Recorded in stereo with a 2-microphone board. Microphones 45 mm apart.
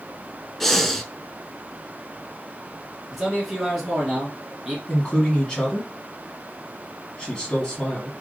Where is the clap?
No clap in this recording.